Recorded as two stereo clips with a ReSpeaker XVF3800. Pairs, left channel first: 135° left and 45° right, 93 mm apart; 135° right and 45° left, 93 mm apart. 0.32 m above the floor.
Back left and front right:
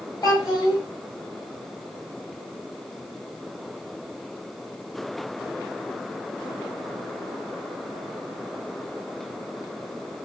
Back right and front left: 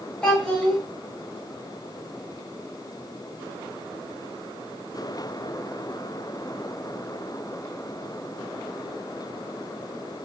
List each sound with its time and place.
0.2 s a child speaking: 150° left, 1.3 m